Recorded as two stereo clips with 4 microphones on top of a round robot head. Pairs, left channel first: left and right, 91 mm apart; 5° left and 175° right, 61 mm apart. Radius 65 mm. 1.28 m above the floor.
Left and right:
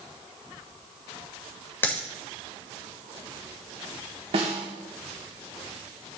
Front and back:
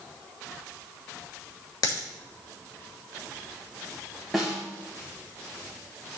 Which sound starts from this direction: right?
A snare drum, at 4.3 s.